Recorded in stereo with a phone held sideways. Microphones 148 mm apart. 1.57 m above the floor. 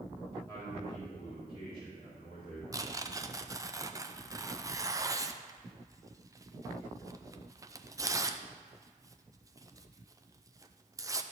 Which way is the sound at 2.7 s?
20° right (ahead or behind).